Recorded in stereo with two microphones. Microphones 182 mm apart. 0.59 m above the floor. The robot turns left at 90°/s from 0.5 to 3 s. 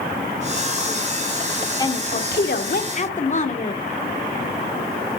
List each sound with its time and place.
1.8 s a woman speaking: 155° left, 1.1 m; by 3.8 s 45° left, 1.1 m